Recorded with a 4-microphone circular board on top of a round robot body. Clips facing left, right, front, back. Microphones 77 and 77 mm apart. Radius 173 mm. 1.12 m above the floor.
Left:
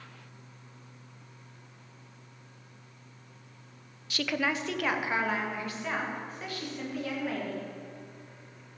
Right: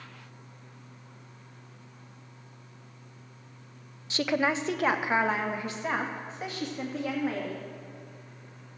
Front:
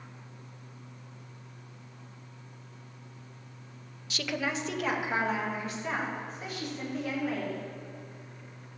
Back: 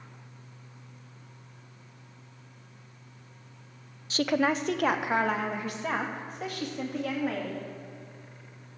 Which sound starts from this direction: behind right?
A woman speaking, at 4.1 s.